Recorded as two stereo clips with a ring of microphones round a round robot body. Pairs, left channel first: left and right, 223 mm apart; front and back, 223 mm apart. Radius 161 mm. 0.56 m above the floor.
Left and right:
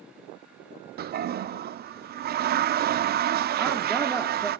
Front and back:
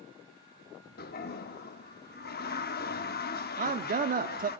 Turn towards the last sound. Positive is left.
turn(degrees=180)